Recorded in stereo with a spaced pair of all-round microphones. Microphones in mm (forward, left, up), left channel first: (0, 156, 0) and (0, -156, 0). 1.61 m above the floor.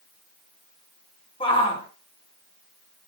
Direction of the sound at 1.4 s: 15° left (ahead or behind).